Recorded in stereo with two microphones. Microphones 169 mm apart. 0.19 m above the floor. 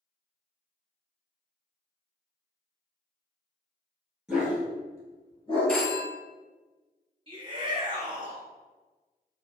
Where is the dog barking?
5° right (ahead or behind), 1.6 m; by 5.8 s 40° left (ahead or behind), 1.5 m.